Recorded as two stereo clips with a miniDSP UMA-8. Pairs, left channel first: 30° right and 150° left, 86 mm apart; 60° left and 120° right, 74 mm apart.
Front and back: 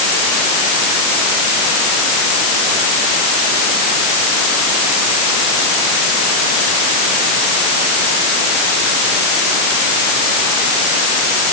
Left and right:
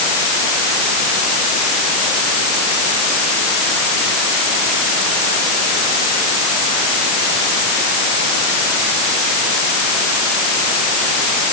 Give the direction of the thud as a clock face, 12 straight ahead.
No thud in this recording.